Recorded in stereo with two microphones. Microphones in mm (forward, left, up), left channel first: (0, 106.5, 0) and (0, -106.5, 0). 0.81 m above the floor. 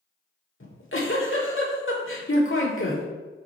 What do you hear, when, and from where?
0.6 s a giggle: 70° left (ahead or behind), 1.5 m